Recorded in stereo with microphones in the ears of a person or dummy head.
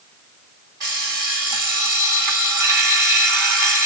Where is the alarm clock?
20° right (ahead or behind), 1.7 m.